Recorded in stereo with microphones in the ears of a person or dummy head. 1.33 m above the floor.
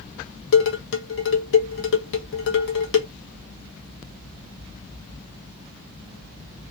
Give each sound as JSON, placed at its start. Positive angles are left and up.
{"t": 0.5, "sound": "dishes clattering", "side_deg": 70, "distance_m": 0.9}